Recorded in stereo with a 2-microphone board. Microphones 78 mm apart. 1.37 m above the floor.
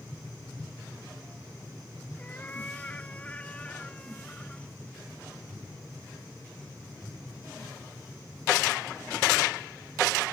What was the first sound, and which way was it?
A cat meowing, 20° left (ahead or behind).